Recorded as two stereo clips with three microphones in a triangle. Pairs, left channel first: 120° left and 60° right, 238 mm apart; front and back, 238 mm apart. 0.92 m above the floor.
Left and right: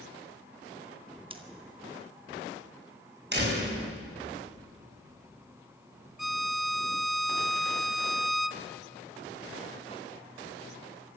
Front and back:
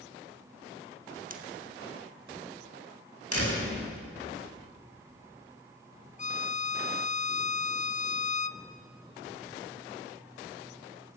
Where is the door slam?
15° right, 6.5 m.